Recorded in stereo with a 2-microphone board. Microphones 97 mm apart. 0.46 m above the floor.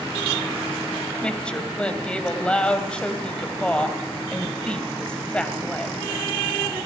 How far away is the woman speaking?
About 2.5 m.